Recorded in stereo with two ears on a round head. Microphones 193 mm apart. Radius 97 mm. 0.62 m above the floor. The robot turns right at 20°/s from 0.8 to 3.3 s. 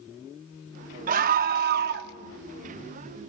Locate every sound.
1.1 s a scream: 40° right (ahead or behind), 0.8 m; by 2.1 s 50° right (ahead or behind), 0.8 m